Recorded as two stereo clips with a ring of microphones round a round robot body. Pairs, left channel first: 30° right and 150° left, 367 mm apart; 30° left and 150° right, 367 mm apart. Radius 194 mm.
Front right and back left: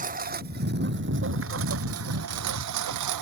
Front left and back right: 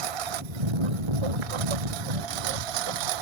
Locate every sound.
0.0 s a lawn mower: 140° right; by 3.2 s 170° right